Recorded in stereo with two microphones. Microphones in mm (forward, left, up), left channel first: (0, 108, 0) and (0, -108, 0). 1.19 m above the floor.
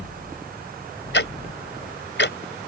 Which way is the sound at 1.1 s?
55° left (ahead or behind).